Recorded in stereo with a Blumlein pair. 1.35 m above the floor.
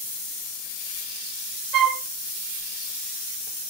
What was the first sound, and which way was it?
A flute, 35° right.